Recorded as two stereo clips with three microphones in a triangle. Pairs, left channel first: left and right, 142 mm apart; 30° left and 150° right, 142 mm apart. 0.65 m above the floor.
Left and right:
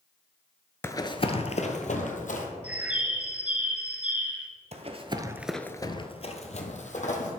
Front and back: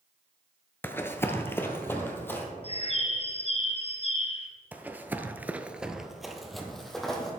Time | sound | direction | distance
0.8 | running footsteps | 65° left | 0.6 m
2.6 | a bird | 10° right | 1.3 m
4.7 | running footsteps | 75° right | 1.0 m